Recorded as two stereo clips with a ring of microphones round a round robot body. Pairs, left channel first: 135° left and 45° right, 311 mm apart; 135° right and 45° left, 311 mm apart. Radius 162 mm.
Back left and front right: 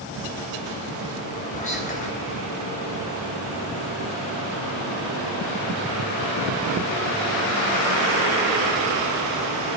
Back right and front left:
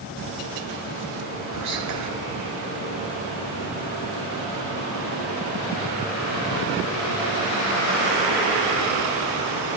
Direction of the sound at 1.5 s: 70° left.